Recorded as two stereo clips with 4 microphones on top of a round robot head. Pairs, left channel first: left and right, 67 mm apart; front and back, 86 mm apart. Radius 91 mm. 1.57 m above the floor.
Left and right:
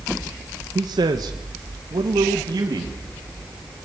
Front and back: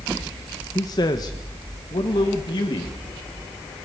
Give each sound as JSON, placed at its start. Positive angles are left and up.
{"t": 0.8, "sound": "a man speaking", "azimuth_deg": -55, "distance_m": 1.2}